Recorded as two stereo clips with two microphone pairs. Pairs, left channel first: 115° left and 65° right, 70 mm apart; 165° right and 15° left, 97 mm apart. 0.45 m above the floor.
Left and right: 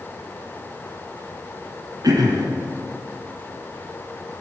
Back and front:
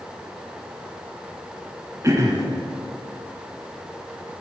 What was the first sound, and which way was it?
Throat clearing, 40° right.